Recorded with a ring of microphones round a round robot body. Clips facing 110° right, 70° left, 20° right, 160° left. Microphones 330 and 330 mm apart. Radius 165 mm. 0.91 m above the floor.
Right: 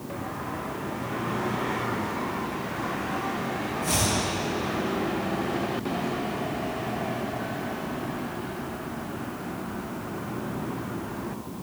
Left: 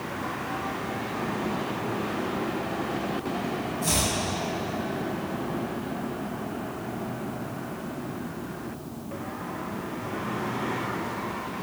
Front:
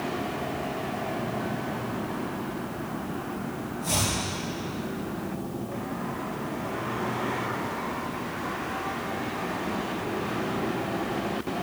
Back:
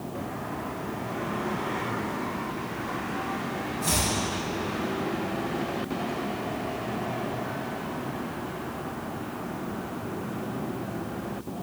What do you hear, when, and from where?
3.8 s chopping: 110° left, 7.5 m